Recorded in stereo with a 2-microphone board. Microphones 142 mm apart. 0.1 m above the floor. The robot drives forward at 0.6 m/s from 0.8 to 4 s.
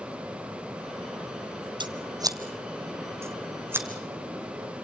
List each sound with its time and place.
1.8 s scissors: 35° right (ahead or behind), 1.1 m; by 3.9 s 15° right (ahead or behind), 2 m